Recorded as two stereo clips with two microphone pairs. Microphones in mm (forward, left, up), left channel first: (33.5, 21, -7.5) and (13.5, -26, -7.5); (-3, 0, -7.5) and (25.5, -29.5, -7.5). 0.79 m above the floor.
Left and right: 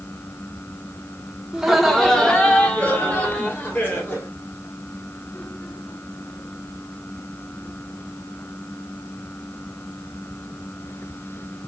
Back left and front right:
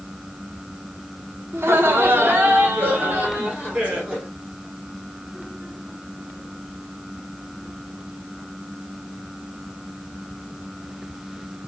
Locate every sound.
1.5 s laughter: 35° right, 1.4 m; by 4.3 s 15° left, 3 m